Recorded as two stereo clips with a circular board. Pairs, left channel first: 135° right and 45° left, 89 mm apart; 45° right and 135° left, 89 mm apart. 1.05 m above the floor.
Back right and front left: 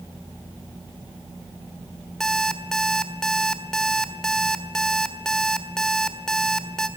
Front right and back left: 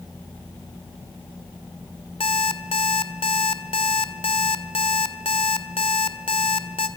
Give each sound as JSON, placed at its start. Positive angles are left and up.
{"t": 2.2, "sound": "an alarm clock", "azimuth_deg": -50, "distance_m": 1.6}